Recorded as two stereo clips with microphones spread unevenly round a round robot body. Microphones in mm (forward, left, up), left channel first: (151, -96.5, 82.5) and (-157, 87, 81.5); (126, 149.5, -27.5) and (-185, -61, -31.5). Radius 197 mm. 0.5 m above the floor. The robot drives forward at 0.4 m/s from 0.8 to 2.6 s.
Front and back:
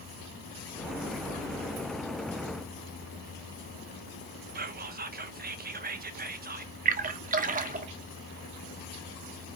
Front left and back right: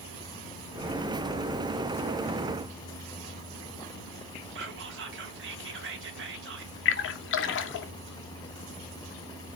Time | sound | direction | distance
4.5 | whispering | 170° right | 0.7 m
6.8 | a splash | 85° left | 0.6 m